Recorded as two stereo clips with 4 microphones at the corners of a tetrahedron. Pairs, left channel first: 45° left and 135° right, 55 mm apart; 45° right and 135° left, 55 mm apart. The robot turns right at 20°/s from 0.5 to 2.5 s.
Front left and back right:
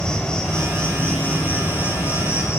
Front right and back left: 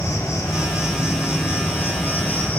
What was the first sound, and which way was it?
An insect, 30° right.